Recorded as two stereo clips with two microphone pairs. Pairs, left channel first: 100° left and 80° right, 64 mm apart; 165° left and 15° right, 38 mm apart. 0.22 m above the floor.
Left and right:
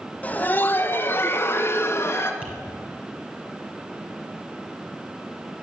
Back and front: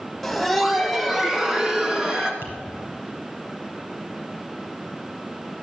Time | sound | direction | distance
0.2 | laughter | 90° left | 1.0 m
2.4 | tapping | 15° right | 3.5 m